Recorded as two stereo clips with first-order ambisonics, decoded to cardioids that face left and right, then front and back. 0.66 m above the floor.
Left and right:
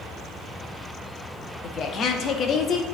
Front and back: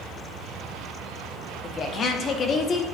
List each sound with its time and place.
1.6 s a woman speaking: 50° left, 0.9 m